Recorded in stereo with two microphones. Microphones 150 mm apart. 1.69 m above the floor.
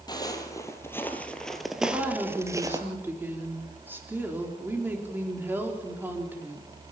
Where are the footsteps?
25° left (ahead or behind), 2.5 m; by 2.8 s 25° right (ahead or behind), 1.8 m.